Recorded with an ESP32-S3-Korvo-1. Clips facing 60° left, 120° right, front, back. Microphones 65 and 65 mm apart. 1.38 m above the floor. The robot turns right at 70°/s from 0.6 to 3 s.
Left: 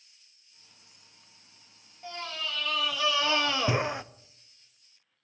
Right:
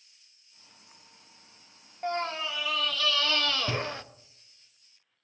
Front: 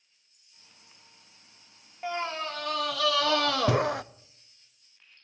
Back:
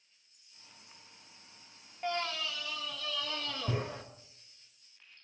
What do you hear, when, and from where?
2.0 s a scream: 80° right, 0.6 m; by 4.0 s 15° right, 0.6 m